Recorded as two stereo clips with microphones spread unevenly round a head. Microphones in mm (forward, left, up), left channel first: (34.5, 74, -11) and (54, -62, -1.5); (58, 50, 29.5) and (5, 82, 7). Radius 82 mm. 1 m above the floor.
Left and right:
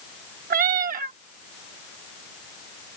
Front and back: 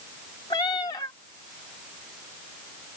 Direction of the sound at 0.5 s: 65° right.